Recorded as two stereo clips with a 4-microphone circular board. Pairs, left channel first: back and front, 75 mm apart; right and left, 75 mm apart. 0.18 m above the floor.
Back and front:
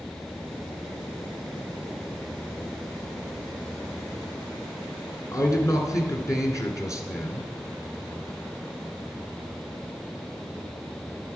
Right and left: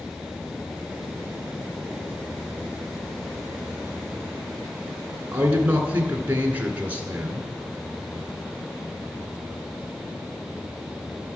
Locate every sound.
5.3 s a man speaking: 155° left, 1.8 m